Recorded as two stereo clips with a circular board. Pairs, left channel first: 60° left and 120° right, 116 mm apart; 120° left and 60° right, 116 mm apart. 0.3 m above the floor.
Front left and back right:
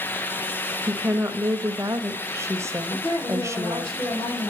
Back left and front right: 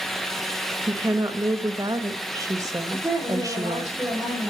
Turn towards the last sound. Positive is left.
turn(degrees=20)